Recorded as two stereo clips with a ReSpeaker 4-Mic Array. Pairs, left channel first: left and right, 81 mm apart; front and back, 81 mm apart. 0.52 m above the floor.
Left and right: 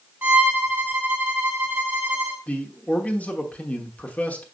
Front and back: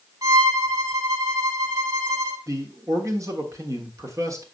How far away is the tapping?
I don't hear tapping.